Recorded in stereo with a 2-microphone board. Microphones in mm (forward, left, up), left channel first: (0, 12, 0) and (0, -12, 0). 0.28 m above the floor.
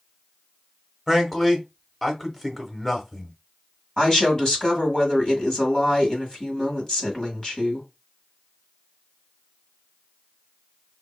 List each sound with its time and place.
1.1 s a man speaking: 5° left (ahead or behind), 0.9 m
4.0 s a woman speaking: 30° left (ahead or behind), 1.7 m